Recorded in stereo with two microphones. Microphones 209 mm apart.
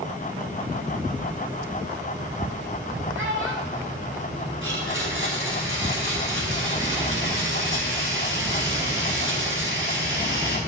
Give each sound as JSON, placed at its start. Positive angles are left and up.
{"t": 3.1, "sound": "a child speaking", "side_deg": -75, "distance_m": 5.5}
{"t": 4.6, "sound": "a blender", "side_deg": -75, "distance_m": 5.0}